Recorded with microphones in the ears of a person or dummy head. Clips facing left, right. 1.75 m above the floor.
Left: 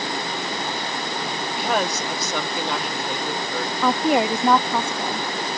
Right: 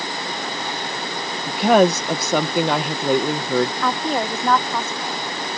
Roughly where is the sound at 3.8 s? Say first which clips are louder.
Left 3 dB; centre.